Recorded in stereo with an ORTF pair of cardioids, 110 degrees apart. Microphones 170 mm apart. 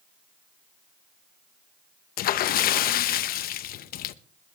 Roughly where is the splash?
Ahead left.